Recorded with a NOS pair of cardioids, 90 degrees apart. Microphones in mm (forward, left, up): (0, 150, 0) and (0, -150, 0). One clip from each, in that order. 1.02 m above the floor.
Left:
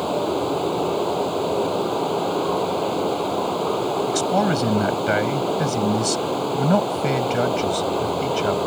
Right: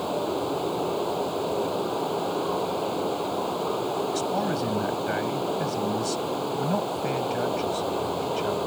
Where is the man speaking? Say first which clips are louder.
Left 6 dB; 65° left.